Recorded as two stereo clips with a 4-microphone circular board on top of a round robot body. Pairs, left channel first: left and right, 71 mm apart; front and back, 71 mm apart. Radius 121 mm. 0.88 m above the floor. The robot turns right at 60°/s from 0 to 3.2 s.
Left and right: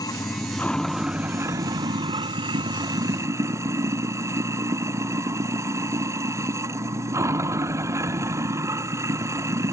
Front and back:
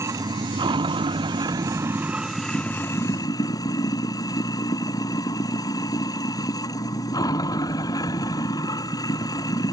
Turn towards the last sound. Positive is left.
turn(degrees=-40)